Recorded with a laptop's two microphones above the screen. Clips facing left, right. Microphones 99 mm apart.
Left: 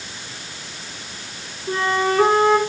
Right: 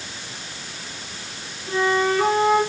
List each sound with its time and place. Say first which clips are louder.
1.7 s a flute: even; 40° left (ahead or behind), 6.5 m